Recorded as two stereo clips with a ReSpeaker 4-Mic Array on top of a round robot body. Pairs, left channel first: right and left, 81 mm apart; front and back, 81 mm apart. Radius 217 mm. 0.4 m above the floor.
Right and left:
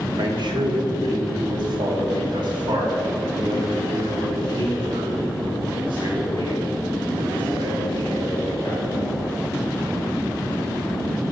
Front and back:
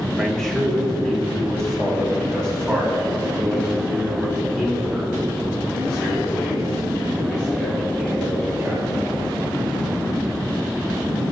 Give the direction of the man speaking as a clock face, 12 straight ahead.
9 o'clock.